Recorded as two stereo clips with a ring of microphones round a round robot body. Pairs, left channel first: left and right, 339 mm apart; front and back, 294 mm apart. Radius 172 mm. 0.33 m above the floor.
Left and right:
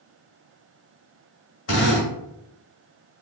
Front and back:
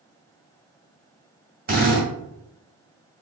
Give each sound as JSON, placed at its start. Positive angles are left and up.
{"t": 1.7, "sound": "a drill", "azimuth_deg": 130, "distance_m": 1.6}